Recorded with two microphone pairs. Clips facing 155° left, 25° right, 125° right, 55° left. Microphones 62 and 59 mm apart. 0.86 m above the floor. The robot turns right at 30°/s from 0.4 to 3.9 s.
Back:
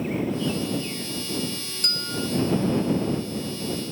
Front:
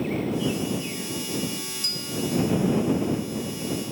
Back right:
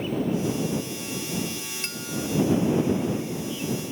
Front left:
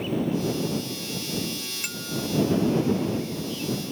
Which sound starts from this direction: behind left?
A bell, at 1.8 s.